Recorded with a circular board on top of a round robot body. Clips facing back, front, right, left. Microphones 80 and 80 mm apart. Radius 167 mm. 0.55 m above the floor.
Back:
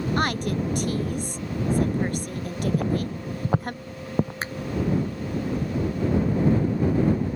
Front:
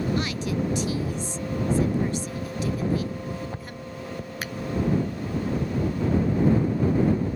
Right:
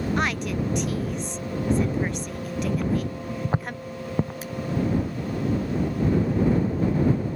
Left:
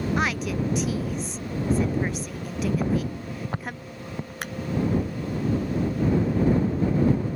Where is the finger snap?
120° left.